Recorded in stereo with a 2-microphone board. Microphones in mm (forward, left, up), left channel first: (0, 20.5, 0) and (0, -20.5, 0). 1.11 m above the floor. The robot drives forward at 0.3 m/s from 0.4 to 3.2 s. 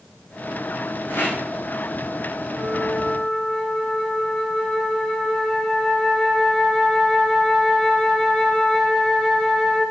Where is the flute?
15° left (ahead or behind), 3.5 m.